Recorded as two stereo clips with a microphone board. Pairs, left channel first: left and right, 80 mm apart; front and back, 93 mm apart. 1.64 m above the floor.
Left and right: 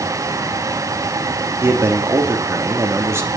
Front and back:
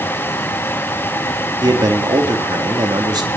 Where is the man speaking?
145° right, 3.5 m.